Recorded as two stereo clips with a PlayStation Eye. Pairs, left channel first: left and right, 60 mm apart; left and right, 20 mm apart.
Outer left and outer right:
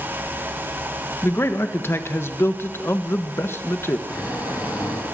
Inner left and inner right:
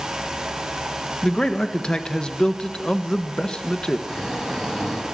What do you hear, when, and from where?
1.2 s a man speaking: 40° left (ahead or behind), 1.5 m
4.1 s snoring: 70° left (ahead or behind), 6.5 m